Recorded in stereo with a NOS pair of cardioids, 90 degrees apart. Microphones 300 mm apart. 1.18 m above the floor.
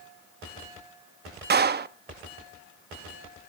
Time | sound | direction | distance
1.5 | a clap | 35° right | 1.1 m